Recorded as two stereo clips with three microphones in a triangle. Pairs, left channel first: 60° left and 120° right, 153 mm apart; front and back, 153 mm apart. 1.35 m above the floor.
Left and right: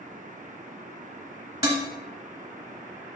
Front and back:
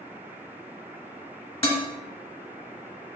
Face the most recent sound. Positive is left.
turn(degrees=-55)